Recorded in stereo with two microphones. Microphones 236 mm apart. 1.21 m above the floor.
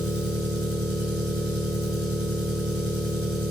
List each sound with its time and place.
0.0 s an engine running: 75° right (ahead or behind), 2.5 m